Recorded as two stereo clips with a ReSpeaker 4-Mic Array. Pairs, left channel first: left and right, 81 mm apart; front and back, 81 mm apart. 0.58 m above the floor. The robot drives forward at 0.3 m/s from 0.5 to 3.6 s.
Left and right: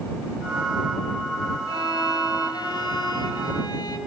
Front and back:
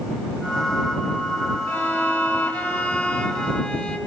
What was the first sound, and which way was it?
A violin, 70° left.